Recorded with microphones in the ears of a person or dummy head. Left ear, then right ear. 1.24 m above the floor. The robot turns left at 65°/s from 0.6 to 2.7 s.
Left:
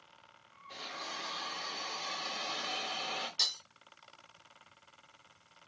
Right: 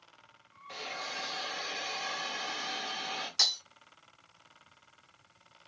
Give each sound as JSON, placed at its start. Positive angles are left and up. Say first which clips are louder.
{"t": 0.7, "sound": "a hiss", "louder": "right 3 dB", "azimuth_deg": -55, "distance_m": 1.3}
{"t": 3.4, "sound": "breaking glass", "louder": "right 5 dB", "side_deg": -40, "distance_m": 0.6}